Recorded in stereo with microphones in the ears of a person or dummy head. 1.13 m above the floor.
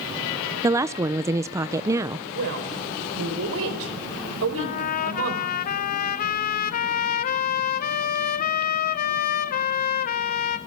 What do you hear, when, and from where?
0.6 s a woman speaking: 15° right (ahead or behind), 0.5 m
2.3 s a woman speaking: 80° right, 4 m
4.6 s a trumpet: 45° left (ahead or behind), 1.0 m